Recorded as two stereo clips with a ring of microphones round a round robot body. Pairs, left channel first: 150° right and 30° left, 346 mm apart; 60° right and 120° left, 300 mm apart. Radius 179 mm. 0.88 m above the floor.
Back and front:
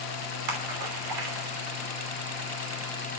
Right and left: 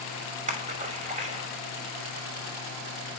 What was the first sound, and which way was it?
A splash, 55° left.